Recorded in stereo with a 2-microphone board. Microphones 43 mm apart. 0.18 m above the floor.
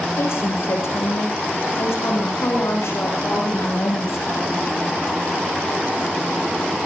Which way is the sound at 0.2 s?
80° left.